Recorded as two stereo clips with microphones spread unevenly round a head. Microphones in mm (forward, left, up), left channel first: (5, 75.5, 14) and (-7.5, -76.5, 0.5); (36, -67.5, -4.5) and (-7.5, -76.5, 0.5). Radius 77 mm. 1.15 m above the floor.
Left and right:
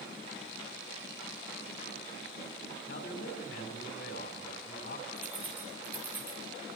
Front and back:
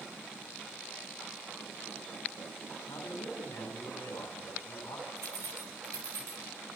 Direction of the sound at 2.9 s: 55° left.